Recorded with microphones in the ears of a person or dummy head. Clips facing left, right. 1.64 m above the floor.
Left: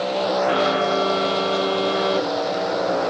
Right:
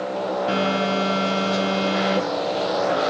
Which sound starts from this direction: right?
A phone buzzing, at 0.5 s.